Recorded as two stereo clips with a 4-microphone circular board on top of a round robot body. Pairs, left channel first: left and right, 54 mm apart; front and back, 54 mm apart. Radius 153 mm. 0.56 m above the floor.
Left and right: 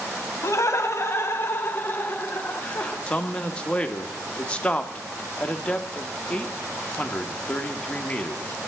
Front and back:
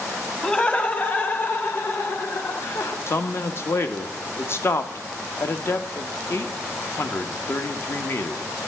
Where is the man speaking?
25° left, 1.1 m.